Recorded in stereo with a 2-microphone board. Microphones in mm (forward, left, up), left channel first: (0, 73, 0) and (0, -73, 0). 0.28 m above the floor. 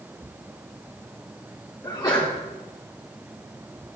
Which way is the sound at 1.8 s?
25° left (ahead or behind).